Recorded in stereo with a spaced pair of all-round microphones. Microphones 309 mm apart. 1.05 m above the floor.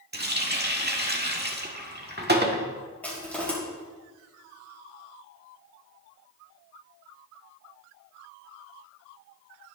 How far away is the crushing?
About 5 m.